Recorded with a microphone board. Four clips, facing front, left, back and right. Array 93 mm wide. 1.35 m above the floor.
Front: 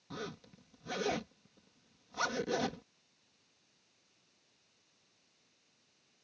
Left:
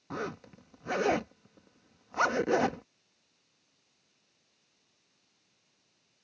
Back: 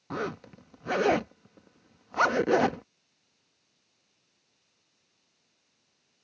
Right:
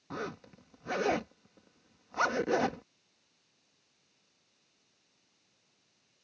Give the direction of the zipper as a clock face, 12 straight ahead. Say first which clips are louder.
Left 2 dB, back 11 dB; 6 o'clock.